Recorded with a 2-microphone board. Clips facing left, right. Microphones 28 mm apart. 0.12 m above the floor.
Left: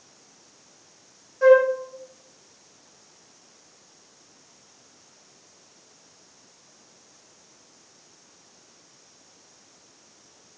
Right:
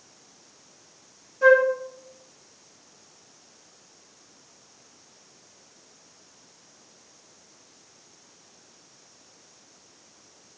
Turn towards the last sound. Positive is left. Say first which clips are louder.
# left 2 dB
turn(degrees=20)  # may be behind; listen again after turning